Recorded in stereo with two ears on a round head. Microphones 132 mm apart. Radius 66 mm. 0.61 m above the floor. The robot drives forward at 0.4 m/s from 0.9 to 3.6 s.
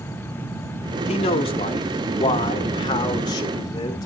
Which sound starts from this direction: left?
A man speaking, at 1.1 s.